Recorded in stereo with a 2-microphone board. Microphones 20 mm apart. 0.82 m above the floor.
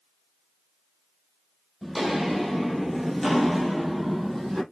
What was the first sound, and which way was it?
Footsteps, 5° right (ahead or behind).